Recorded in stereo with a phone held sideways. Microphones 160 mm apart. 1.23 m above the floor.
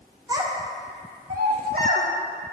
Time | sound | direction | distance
0.3 | a child speaking | 25° right (ahead or behind) | 1.4 m